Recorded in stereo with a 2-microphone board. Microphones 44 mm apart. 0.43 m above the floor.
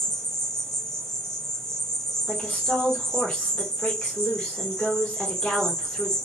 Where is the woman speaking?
20° left (ahead or behind), 1.7 m.